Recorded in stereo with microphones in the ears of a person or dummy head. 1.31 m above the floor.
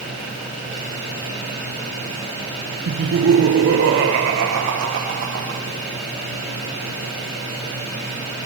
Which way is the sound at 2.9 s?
65° right (ahead or behind).